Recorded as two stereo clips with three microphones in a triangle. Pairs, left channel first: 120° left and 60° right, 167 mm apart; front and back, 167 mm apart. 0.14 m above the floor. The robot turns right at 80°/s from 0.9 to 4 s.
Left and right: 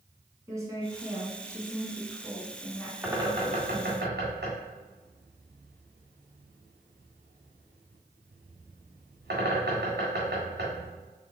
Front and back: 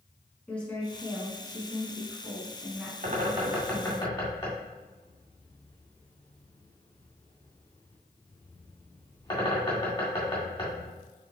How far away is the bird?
About 1.9 m.